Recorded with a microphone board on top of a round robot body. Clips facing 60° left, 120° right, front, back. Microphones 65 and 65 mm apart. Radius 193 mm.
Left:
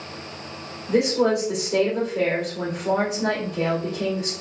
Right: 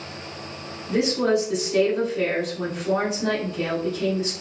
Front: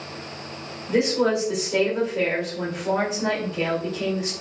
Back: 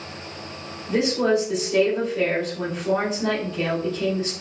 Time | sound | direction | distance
0.9 | a woman speaking | 75° left | 2 m